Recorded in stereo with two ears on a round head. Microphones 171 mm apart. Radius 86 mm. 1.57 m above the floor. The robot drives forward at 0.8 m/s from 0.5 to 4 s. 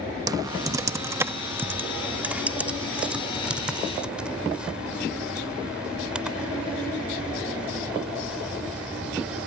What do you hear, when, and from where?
0.3 s typing on a keyboard: 20° right (ahead or behind); by 9.5 s 5° right (ahead or behind)